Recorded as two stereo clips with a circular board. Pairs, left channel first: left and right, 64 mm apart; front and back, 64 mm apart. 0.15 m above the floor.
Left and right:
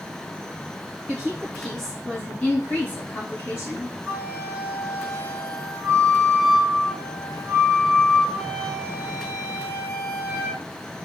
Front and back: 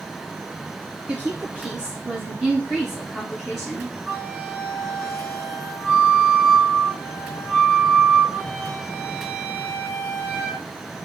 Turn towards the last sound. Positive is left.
turn(degrees=-130)